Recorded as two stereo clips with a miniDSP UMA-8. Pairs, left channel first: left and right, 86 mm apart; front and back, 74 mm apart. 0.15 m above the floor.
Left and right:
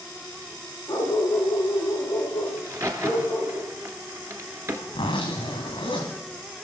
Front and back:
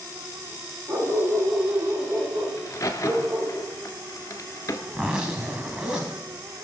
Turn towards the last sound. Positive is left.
turn(degrees=110)